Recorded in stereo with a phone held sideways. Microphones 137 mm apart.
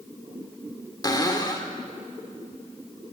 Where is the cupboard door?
30° left (ahead or behind), 2.5 m.